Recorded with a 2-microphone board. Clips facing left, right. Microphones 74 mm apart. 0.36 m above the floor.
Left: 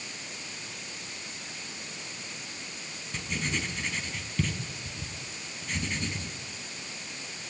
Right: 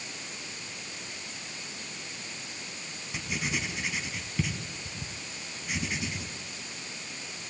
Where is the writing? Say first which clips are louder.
Even; 10° right (ahead or behind), 3.5 m.